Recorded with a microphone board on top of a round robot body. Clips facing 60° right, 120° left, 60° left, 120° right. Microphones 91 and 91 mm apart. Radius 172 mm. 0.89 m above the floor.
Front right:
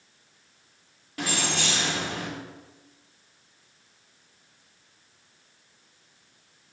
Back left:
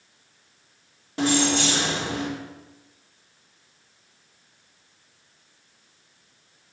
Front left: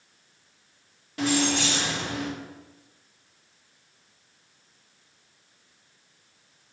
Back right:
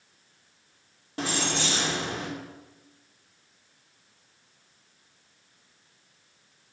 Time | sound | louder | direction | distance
1.2 | keys jangling | back left 8 dB, front left 5 dB | straight behind | 2.5 m